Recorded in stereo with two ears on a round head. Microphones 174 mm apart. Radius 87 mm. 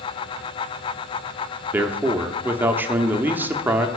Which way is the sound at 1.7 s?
10° right (ahead or behind).